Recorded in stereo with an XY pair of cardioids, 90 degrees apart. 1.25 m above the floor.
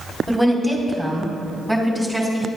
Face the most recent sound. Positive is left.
turn(degrees=5)